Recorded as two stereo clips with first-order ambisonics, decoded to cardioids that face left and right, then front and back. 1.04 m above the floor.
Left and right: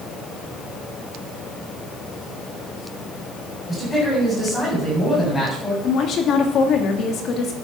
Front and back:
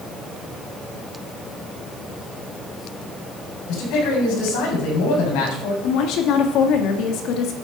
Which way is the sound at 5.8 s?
35° left.